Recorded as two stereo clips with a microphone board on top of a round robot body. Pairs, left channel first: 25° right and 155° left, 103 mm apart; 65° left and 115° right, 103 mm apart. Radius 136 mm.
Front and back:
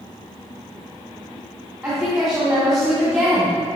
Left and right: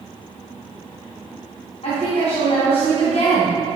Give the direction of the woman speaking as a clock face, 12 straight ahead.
10 o'clock.